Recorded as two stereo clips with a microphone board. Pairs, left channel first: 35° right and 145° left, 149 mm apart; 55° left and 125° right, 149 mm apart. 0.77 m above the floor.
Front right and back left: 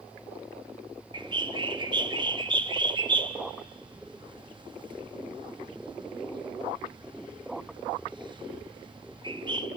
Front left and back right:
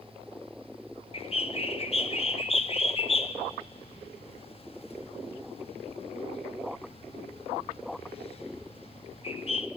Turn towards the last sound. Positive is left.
turn(degrees=95)